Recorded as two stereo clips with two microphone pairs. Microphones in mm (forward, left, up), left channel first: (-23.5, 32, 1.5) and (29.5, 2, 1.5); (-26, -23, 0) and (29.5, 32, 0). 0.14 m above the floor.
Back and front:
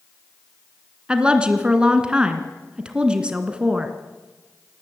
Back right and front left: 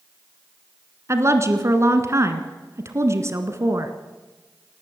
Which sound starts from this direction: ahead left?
A woman speaking, at 1.1 s.